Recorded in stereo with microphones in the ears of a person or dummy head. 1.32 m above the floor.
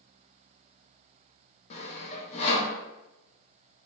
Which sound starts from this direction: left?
Sawing, at 1.7 s.